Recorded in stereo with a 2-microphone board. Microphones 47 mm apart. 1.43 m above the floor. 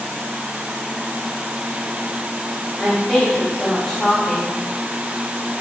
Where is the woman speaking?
10° left (ahead or behind), 2.5 m.